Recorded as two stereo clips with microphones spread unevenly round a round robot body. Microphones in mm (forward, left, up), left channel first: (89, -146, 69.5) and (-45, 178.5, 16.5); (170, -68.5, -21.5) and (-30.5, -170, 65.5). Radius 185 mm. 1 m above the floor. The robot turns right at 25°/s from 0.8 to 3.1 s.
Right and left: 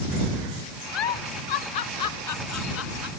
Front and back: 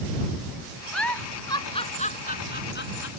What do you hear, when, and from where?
0.9 s a giggle: 65° right; by 3.1 s 10° right